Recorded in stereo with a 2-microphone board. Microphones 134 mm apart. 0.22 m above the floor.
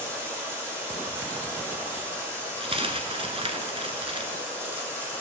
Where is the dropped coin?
45° right (ahead or behind), 1.1 m.